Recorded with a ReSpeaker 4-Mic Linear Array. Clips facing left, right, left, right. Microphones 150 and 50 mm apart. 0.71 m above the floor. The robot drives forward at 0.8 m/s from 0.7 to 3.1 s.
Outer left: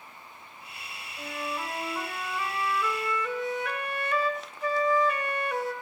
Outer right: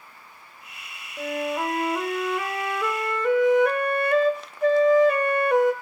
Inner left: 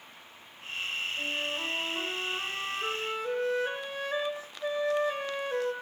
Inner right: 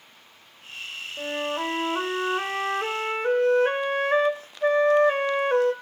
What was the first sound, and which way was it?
A flute, 60° right (ahead or behind).